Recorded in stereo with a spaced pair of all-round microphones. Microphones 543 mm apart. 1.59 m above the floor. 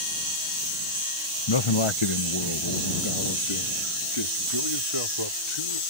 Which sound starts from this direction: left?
A man speaking, at 1.5 s.